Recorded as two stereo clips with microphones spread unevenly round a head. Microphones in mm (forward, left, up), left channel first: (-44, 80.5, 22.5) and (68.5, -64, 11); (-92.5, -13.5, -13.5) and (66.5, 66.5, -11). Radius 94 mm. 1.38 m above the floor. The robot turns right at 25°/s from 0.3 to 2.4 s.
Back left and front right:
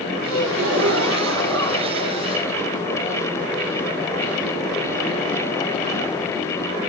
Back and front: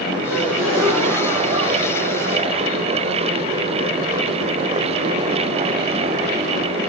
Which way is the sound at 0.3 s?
75° right.